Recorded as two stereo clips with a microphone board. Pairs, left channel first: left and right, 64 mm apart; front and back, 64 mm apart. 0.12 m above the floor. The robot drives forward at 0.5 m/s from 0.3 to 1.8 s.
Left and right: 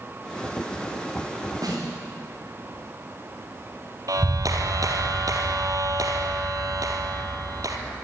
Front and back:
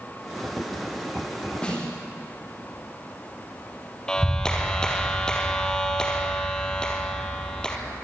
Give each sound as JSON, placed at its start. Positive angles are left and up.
{"t": 1.6, "sound": "a snare drum", "azimuth_deg": -75, "distance_m": 7.5}
{"t": 4.1, "sound": "a clap", "azimuth_deg": -80, "distance_m": 2.5}